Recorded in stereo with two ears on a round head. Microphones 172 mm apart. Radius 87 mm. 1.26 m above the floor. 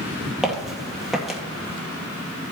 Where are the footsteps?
Centre (ahead or behind), 1.9 m.